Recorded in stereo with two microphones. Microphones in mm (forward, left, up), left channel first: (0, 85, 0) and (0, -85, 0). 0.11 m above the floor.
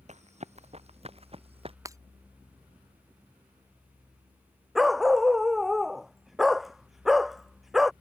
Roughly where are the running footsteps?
Right.